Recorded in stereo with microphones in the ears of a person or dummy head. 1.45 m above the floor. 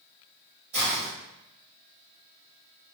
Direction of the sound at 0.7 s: 30° right (ahead or behind).